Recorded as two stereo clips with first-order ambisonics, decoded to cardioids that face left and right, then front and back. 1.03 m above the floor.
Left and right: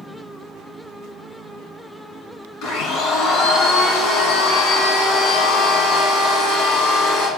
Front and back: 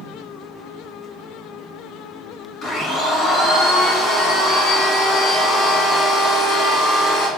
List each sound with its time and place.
2.6 s a blender: 60° left, 2 m